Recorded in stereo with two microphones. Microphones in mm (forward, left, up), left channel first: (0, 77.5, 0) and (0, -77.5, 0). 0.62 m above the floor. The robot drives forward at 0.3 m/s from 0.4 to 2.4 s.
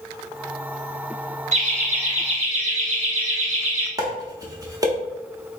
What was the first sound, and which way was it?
Laughter, 55° right (ahead or behind).